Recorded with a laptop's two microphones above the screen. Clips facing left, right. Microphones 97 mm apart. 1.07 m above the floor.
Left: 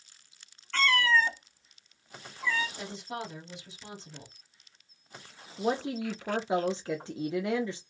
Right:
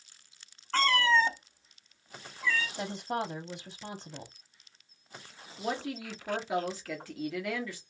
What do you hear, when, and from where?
0.7 s a cat meowing: 35° right (ahead or behind), 0.7 m; by 2.7 s 20° left (ahead or behind), 0.8 m
2.8 s a woman speaking: 40° right (ahead or behind), 0.7 m
5.6 s a woman speaking: 25° left (ahead or behind), 0.6 m